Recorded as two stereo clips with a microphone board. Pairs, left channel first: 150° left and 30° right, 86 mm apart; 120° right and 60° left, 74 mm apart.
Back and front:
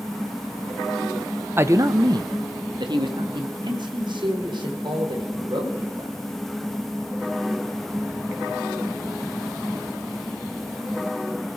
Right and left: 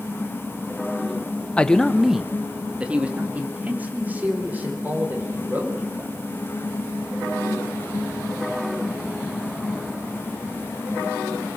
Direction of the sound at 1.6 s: 60° right.